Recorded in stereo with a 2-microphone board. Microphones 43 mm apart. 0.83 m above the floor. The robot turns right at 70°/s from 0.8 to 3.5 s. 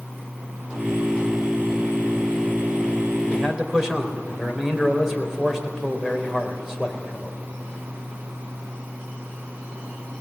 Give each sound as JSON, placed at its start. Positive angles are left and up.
{"t": 3.3, "sound": "a man speaking", "side_deg": 5, "distance_m": 3.5}